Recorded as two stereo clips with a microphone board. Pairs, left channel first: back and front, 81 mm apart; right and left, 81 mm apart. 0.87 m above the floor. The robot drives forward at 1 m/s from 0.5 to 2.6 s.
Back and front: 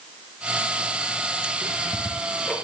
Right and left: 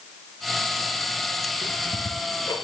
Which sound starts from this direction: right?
Ticking, at 1.6 s.